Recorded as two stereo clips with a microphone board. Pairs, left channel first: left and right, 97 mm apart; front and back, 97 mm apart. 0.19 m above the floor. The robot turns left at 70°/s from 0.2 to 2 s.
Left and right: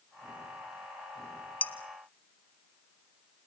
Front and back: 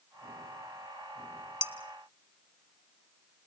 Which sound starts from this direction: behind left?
Dishes clattering, at 1.6 s.